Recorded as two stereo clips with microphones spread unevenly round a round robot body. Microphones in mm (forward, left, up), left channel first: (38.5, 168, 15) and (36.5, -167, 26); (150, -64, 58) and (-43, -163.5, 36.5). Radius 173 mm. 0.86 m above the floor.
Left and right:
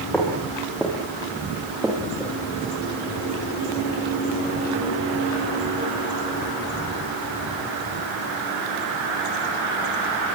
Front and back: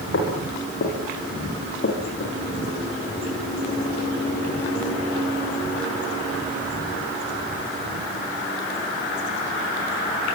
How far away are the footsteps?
About 10 m.